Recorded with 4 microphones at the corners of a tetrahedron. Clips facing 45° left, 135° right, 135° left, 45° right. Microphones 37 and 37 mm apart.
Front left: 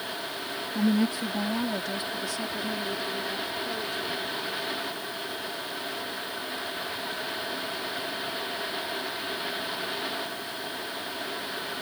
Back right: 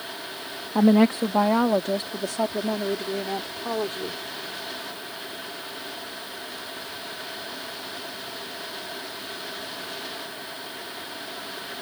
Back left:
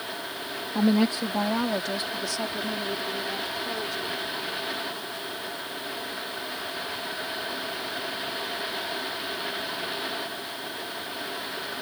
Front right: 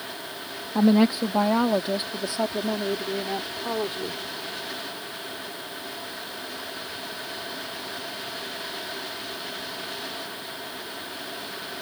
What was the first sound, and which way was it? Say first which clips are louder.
A woman speaking: back right 8 dB, front right 4 dB; 125° right.